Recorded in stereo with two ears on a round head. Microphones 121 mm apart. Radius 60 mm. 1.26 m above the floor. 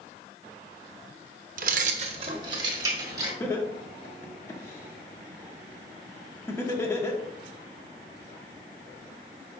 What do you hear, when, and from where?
1.6 s keys jangling: 65° right (ahead or behind), 0.8 m; by 3.3 s 25° right (ahead or behind), 2.5 m
3.4 s laughter: 20° left (ahead or behind), 1.5 m